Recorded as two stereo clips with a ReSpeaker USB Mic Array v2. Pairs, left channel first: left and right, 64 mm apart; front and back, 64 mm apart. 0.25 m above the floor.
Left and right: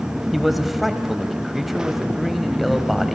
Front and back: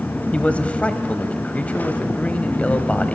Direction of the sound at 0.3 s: 5° right.